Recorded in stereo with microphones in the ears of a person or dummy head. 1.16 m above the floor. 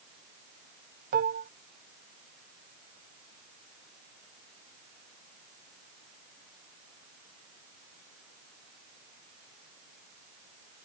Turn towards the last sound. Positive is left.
turn(degrees=-50)  # may be behind; listen again after turning